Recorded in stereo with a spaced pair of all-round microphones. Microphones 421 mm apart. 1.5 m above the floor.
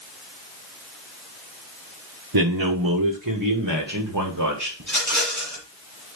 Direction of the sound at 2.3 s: 55° right (ahead or behind).